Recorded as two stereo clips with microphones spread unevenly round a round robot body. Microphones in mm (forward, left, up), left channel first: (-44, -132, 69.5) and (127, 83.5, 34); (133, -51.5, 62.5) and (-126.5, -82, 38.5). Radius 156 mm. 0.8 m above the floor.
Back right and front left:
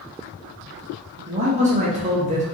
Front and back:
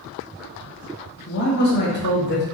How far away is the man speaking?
About 0.7 m.